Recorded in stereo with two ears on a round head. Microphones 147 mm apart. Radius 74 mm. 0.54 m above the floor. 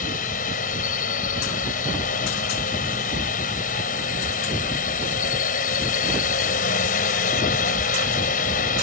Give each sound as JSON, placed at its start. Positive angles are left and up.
{"t": 0.0, "sound": "a drone", "side_deg": 55}